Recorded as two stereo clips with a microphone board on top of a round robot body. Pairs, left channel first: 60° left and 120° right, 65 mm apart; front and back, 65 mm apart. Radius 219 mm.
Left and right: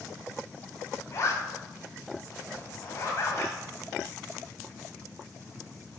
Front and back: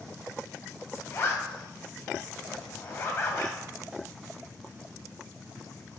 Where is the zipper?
25° left, 2.0 m.